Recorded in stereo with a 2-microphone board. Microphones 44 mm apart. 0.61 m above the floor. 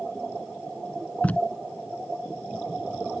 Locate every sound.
1.2 s tape being pulled: 35° left (ahead or behind)